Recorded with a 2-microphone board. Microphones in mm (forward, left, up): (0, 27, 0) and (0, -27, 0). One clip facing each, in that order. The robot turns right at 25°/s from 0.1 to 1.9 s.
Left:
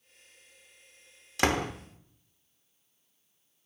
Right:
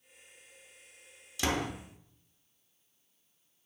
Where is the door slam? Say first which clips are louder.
Left 5 dB; 55° left (ahead or behind), 0.7 m.